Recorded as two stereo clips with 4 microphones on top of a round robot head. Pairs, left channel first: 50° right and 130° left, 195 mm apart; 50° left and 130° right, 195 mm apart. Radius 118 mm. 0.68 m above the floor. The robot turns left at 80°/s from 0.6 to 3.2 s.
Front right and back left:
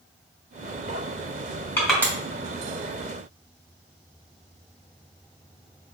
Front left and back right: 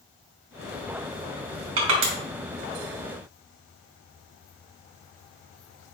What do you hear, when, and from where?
1.8 s crushing: 130° right, 3 m; by 2.1 s 160° right, 3 m